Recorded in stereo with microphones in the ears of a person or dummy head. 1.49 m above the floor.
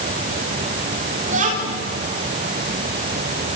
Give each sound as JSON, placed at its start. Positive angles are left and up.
{"t": 1.3, "sound": "a child speaking", "side_deg": -40, "distance_m": 4.5}